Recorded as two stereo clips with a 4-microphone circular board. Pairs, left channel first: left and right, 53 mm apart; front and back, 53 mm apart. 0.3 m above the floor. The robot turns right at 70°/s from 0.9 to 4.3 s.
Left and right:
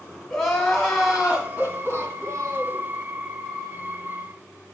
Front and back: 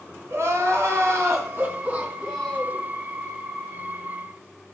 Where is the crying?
170° left, 2.5 m; by 2.8 s 55° right, 2.5 m.